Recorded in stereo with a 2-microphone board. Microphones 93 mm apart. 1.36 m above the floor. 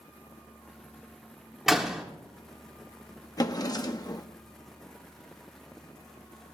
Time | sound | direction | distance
1.7 | a door slam | 5° right (ahead or behind) | 2 m
3.4 | a drawer | 40° left (ahead or behind) | 0.9 m